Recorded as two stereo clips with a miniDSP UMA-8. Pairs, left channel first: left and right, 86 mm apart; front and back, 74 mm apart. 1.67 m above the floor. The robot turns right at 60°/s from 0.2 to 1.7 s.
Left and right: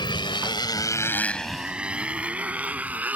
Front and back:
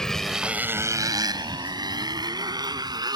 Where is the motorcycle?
80° left; by 3.2 s 160° right.